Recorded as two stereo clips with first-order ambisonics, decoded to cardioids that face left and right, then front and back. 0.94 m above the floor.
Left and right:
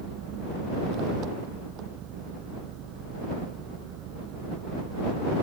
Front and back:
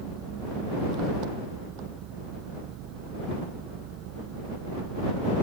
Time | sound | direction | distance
0.0 | an engine running | 135° right | ?